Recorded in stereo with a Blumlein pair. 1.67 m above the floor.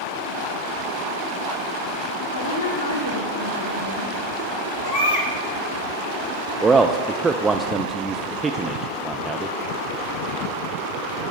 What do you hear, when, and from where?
2.3 s a woman speaking: 70° left, 2 m
4.8 s a baby crying: 45° left, 2.5 m
6.6 s a man speaking: 10° right, 0.5 m